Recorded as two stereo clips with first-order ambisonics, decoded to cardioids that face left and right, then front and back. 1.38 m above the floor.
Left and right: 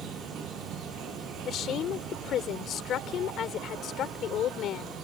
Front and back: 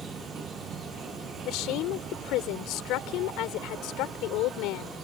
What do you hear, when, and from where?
0.0 s an insect: 125° right
1.4 s a woman speaking: 35° left